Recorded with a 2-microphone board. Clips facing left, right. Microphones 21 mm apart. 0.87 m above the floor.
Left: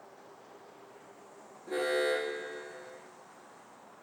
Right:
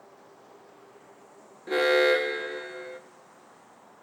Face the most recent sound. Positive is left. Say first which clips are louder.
# right 9 dB
turn(degrees=-55)  # may be behind; listen again after turning